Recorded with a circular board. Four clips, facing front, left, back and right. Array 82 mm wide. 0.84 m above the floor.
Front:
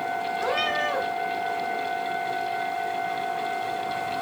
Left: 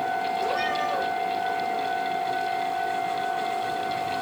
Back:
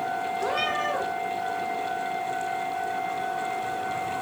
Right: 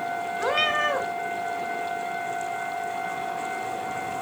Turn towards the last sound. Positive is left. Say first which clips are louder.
# right 1 dB, front 2 dB
turn(degrees=-80)